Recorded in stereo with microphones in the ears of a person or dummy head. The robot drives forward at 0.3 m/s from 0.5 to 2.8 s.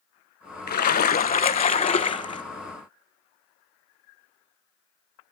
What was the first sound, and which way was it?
A splash, 40° left (ahead or behind).